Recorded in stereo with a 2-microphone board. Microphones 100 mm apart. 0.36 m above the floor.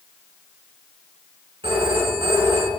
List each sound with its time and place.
1.6 s a phone ringing: 65° right (ahead or behind), 2.5 m